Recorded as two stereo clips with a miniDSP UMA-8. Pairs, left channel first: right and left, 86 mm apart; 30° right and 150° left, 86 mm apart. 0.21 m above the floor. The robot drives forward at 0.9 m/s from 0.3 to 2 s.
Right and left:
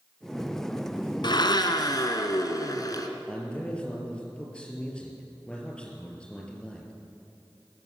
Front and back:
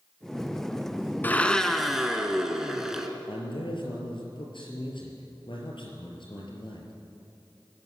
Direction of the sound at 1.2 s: 95° right.